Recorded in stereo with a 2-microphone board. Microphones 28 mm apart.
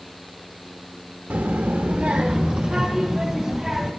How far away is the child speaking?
About 0.8 m.